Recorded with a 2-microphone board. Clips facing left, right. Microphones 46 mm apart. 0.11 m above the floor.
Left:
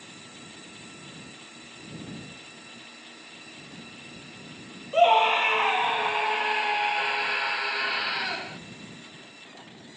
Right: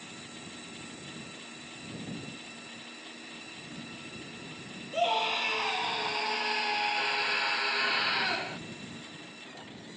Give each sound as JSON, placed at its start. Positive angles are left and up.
{"t": 4.9, "sound": "a scream", "side_deg": 40}